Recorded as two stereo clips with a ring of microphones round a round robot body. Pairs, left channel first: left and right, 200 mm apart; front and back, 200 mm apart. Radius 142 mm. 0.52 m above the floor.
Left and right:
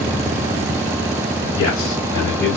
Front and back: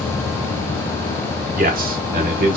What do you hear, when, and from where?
1.6 s a man speaking: 140° left, 1.3 m; by 2.6 s straight behind, 0.9 m